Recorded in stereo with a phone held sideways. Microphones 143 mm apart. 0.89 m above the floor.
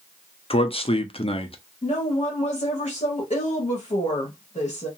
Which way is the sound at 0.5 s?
40° left (ahead or behind).